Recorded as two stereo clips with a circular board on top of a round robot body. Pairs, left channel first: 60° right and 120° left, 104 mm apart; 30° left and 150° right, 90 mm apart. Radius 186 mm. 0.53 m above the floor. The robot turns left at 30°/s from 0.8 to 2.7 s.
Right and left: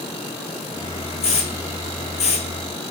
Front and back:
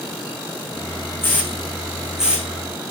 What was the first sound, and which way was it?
A hiss, 35° right.